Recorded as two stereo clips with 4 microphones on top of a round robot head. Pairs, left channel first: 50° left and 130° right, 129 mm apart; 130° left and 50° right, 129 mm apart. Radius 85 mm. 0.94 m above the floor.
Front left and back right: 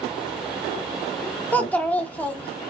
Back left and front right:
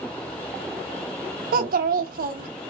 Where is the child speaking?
30° right, 0.7 m.